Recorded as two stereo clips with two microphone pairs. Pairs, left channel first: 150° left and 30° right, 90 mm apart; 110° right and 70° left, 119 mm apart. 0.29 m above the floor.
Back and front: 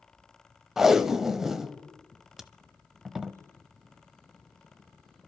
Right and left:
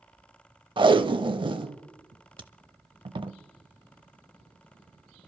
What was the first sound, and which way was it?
Tape being pulled, 50° left.